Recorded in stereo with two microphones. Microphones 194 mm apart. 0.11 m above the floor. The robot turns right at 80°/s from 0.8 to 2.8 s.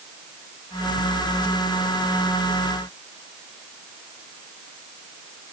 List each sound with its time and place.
Only background noise.